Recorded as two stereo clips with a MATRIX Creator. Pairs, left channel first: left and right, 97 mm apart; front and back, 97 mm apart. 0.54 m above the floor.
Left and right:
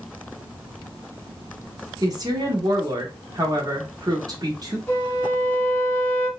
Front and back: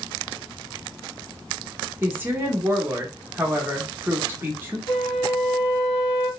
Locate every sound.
2.0 s a woman speaking: 120° right, 0.9 m
4.9 s a flute: 15° left, 1.3 m